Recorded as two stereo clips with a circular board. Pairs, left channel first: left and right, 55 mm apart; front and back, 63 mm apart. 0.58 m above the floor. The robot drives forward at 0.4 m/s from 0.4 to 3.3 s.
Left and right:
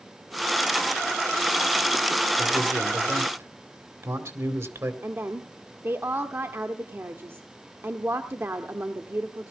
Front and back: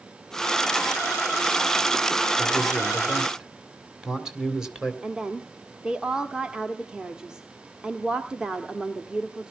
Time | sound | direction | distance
2.4 | a man speaking | 90° right | 2 m
5.0 | a woman speaking | 110° right | 0.8 m